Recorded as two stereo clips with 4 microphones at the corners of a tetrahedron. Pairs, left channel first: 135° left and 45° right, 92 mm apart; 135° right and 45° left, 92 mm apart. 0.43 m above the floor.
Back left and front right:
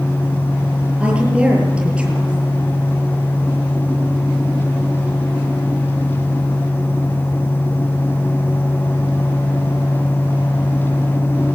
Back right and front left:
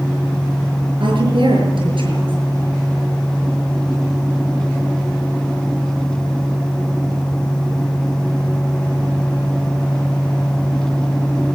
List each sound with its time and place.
1.0 s a woman speaking: 30° left, 7 m